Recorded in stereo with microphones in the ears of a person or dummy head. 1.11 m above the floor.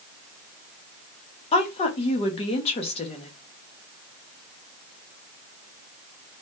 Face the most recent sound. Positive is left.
turn(degrees=25)  # may be behind; listen again after turning